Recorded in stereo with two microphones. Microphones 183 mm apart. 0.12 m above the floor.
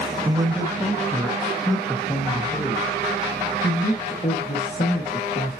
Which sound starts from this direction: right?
A man speaking, at 0.2 s.